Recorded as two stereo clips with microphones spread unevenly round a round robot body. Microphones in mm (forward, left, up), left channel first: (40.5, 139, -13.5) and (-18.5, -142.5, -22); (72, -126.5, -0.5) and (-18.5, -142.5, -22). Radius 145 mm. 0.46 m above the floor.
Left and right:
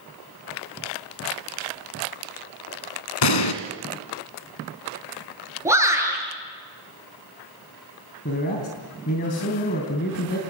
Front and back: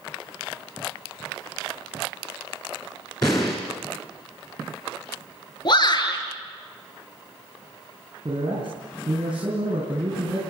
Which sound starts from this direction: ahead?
A shout, at 5.7 s.